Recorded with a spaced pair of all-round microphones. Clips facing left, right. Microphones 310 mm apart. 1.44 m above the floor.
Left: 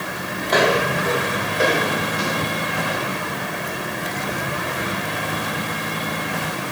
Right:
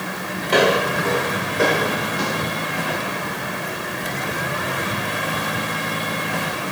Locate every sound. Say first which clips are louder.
0.5 s footsteps: right 1 dB; 35° right (ahead or behind), 1.9 m; by 3.1 s 60° right (ahead or behind), 4.5 m